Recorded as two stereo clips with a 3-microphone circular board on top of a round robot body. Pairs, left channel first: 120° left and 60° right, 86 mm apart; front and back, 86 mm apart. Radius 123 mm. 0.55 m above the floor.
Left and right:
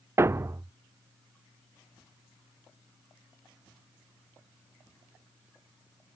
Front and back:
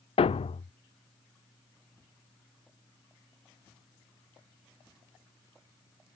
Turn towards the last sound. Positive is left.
turn(degrees=0)